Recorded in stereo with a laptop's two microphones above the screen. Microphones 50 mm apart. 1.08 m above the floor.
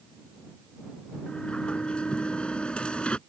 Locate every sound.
1.3 s a sliding door: 20° left (ahead or behind)